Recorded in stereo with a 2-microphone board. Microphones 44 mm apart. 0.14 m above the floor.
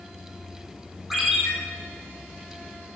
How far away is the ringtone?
About 2 m.